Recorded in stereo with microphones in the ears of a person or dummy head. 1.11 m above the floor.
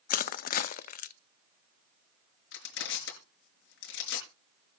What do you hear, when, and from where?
0.1 s crushing: 55° left (ahead or behind), 0.5 m
2.5 s crushing: 80° left, 5 m